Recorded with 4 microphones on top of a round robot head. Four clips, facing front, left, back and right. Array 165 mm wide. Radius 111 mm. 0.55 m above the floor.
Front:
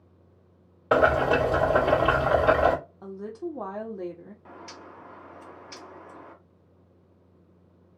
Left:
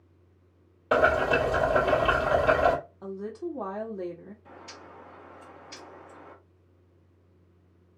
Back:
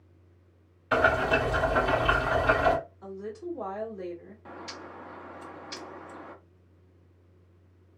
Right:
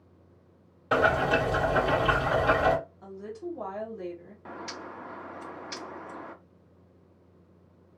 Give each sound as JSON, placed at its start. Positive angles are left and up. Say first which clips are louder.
{"t": 0.9, "sound": "boiling", "louder": "left 1 dB, front 3 dB", "azimuth_deg": 10, "distance_m": 2.0}
{"t": 3.0, "sound": "a woman speaking", "louder": "left 3 dB, front 2 dB", "azimuth_deg": 35, "distance_m": 1.4}
{"t": 4.5, "sound": "a bird", "louder": "right 7 dB, back 4 dB", "azimuth_deg": -100, "distance_m": 1.0}